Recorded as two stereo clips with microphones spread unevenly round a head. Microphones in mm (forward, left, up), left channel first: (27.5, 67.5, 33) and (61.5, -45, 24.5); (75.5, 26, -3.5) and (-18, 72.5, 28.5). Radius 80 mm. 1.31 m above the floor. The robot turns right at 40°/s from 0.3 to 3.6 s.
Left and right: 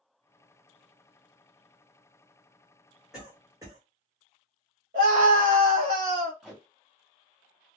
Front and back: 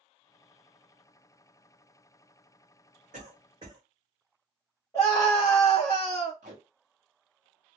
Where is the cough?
160° right, 1.0 m; by 3.8 s 140° right, 1.0 m.